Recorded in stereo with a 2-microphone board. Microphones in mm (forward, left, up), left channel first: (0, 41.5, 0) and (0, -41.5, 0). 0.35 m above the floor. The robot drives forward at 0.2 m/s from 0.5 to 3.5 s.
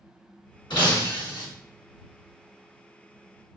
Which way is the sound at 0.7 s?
65° left (ahead or behind).